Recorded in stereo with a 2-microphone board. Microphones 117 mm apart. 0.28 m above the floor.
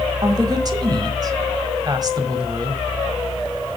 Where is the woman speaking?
35° right (ahead or behind), 1.4 m.